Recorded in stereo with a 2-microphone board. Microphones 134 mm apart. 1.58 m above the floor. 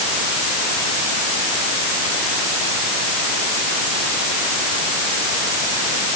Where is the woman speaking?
I don't hear a woman speaking.